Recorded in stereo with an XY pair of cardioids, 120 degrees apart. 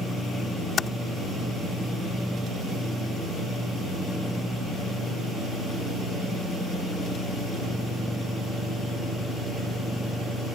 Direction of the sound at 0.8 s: 35° left.